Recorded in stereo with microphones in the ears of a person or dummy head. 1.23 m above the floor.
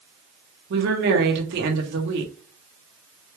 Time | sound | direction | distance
0.7 | a woman speaking | 65° right (ahead or behind) | 1.4 m